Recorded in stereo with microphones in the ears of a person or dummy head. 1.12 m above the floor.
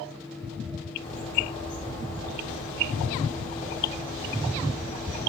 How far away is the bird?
About 2.5 m.